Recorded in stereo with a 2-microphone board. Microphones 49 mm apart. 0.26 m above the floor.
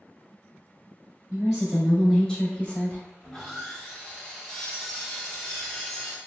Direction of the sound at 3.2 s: 10° left (ahead or behind).